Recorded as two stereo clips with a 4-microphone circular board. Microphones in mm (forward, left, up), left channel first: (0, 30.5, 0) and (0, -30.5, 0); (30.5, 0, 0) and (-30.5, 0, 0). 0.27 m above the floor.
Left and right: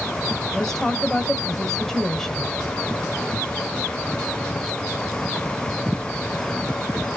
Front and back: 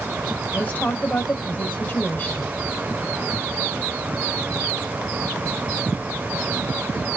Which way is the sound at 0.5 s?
15° left.